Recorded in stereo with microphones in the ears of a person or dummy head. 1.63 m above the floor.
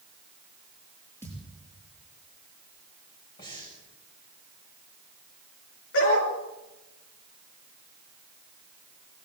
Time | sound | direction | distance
1.2 | a thud | 15° left (ahead or behind) | 6 m
3.4 | breathing | 25° left (ahead or behind) | 6 m
5.9 | a dog barking | 75° left (ahead or behind) | 6.5 m